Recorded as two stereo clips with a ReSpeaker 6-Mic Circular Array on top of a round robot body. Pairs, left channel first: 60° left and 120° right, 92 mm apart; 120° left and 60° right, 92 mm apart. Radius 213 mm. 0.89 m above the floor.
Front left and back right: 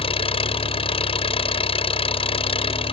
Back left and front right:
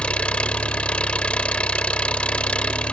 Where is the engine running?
40° left.